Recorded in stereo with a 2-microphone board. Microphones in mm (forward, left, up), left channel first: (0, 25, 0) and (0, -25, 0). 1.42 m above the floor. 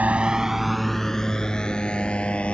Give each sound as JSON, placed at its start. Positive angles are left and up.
{"t": 0.0, "sound": "a motorcycle", "side_deg": -30}